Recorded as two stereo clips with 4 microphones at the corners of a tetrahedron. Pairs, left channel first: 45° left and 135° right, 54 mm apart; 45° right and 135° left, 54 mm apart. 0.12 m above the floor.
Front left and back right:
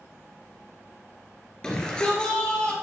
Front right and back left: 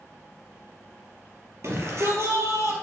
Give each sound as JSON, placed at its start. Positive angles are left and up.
{"t": 1.6, "sound": "a shout", "azimuth_deg": 120, "distance_m": 2.5}